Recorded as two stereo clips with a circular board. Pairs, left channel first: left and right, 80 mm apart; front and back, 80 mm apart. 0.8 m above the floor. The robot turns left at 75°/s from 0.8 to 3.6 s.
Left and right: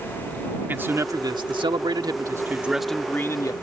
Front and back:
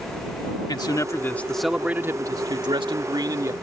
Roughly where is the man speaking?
Ahead right.